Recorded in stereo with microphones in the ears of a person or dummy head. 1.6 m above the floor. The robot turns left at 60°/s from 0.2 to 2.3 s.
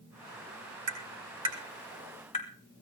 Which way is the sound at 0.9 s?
55° right (ahead or behind).